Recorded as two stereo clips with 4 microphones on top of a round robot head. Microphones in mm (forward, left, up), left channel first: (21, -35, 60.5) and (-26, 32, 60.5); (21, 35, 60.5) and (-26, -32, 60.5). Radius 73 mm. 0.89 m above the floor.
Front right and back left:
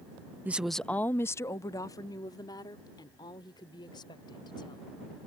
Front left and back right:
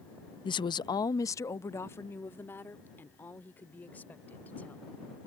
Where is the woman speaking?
60° left; by 4.8 s 15° right.